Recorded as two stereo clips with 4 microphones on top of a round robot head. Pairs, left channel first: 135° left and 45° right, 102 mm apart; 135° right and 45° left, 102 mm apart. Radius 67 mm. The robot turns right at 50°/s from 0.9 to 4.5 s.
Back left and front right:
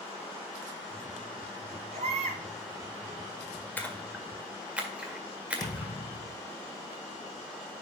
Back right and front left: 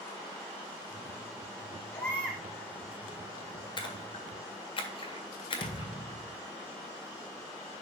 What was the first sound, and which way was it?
A baby crying, 70° right.